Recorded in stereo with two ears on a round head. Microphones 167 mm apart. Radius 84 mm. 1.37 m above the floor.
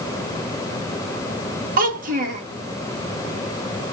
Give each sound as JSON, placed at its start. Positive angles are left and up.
{"t": 1.8, "sound": "a child speaking", "side_deg": -50, "distance_m": 1.8}